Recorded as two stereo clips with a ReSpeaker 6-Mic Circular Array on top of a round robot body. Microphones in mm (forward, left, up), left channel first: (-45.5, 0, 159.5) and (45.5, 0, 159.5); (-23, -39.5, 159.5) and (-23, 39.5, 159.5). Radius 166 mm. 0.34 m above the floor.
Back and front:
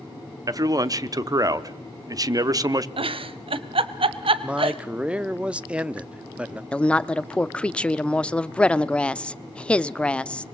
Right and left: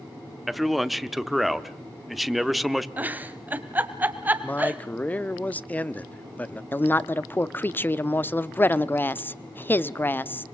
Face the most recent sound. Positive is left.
turn(degrees=-115)